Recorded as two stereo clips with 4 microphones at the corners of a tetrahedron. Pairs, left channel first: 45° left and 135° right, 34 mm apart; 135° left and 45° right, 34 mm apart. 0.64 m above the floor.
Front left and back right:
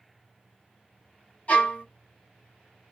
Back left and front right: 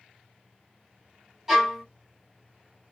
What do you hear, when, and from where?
1.5 s a violin: 30° left, 1.0 m